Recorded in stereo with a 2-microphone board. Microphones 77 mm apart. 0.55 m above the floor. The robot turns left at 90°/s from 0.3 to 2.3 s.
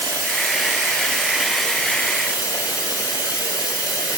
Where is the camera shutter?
I don't hear a camera shutter.